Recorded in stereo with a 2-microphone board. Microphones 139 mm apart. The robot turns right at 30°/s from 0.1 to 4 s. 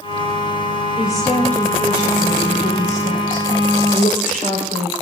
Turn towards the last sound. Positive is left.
turn(degrees=85)